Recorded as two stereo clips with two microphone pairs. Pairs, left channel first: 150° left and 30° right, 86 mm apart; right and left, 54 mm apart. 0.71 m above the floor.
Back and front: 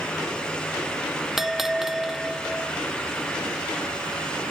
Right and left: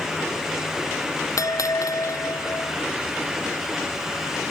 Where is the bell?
115° right.